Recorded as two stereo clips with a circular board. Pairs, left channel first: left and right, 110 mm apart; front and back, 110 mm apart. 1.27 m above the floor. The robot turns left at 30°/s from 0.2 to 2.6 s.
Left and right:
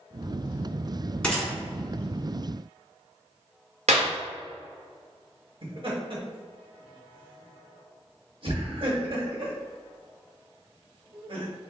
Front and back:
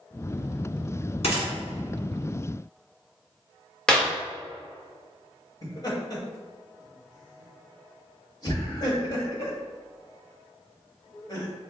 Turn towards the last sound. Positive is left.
turn(degrees=-55)